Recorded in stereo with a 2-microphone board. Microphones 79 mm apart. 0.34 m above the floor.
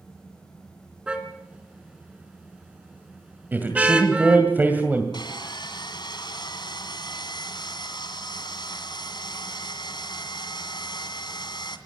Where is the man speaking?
25° right (ahead or behind), 2 m.